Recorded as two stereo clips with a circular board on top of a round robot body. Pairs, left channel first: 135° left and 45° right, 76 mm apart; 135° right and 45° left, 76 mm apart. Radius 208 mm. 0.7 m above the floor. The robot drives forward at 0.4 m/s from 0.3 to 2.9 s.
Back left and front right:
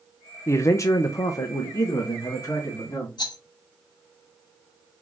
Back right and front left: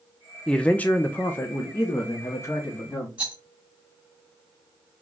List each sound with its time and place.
0.5 s a man speaking: 150° left, 0.6 m; by 3.1 s 175° left, 1.3 m
3.2 s a rattle: 120° left, 0.9 m